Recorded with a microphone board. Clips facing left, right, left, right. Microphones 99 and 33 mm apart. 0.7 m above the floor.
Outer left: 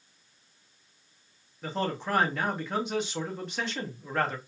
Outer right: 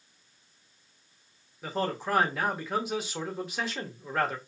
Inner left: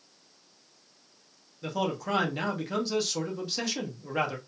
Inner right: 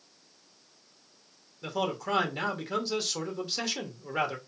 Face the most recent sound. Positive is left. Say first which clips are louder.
# even, inner left 1 dB
turn(degrees=-5)  # may be behind; listen again after turning